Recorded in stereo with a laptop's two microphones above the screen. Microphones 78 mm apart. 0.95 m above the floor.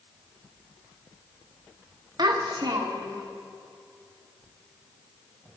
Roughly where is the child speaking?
Right.